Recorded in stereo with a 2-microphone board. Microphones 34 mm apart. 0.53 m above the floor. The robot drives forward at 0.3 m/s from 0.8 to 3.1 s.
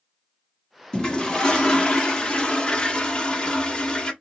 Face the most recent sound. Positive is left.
turn(degrees=30)  # may be behind; listen again after turning